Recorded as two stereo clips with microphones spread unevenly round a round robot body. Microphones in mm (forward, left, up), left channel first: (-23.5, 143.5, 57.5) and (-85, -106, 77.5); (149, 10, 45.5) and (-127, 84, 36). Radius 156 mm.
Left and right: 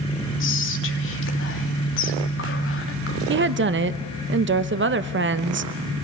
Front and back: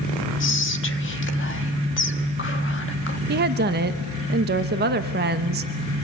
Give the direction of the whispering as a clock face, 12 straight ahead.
11 o'clock.